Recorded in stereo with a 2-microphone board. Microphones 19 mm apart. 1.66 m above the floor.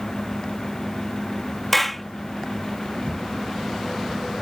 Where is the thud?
85° right.